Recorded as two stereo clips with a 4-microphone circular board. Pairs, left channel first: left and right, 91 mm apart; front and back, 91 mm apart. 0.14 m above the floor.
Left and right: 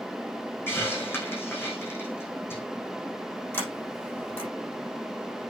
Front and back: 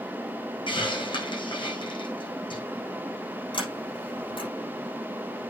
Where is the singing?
No singing in this recording.